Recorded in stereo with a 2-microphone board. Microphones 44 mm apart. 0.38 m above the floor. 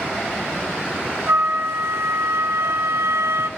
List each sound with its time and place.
1.3 s a flute: 75° right (ahead or behind), 0.7 m